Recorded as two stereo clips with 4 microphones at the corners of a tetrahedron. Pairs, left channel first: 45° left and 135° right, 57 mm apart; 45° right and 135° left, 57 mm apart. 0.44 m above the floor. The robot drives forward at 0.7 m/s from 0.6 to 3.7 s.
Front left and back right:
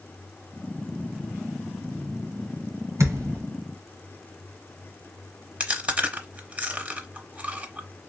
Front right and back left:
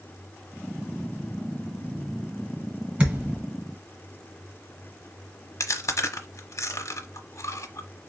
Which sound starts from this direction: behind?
A thud, at 3.0 s.